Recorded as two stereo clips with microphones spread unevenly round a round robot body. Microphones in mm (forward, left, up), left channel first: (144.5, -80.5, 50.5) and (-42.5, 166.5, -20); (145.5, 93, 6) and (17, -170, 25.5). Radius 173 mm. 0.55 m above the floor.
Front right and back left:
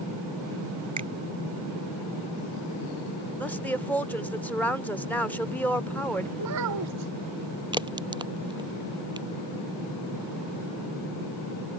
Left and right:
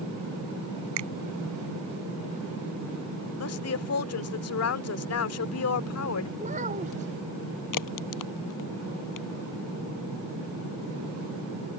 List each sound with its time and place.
1.0 s a finger snap: 160° right
3.4 s a woman speaking: 40° left
6.4 s a child speaking: 175° left
7.7 s a crack: 50° left